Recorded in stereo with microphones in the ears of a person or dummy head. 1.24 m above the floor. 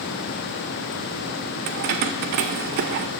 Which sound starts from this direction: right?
Keys jangling, at 1.7 s.